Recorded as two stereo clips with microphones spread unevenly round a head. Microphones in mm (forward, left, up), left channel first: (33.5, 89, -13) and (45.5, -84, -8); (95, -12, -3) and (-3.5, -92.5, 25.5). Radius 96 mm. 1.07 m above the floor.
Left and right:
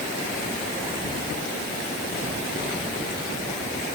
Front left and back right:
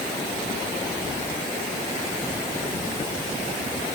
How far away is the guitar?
No guitar in this recording.